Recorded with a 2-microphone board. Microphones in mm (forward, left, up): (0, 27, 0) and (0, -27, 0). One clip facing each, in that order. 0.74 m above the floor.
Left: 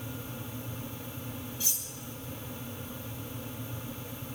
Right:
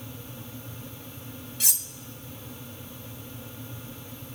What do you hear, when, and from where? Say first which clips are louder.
1.6 s cutlery clinking: right 3 dB; 75° right (ahead or behind), 0.6 m